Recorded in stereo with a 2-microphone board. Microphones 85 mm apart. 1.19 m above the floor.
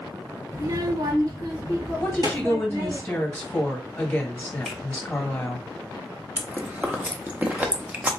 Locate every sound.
0.5 s a child speaking: 40° right (ahead or behind), 0.8 m; by 3.0 s 55° right (ahead or behind), 2 m
2.0 s a woman speaking: 20° left (ahead or behind), 1.4 m
4.7 s a finger snap: centre (ahead or behind), 1.4 m
6.4 s chewing: 20° right (ahead or behind), 0.6 m